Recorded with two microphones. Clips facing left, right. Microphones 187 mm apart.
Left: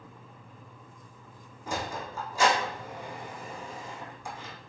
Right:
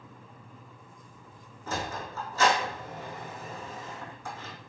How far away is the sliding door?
About 2.5 m.